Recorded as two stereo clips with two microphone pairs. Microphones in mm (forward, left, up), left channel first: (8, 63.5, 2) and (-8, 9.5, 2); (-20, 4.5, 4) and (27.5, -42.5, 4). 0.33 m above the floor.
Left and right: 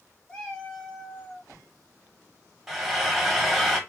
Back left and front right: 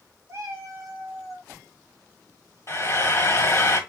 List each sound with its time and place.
0.3 s a cat meowing: straight ahead, 1.4 m; by 1.5 s 5° left, 2.5 m
2.7 s frying: 165° left, 1.5 m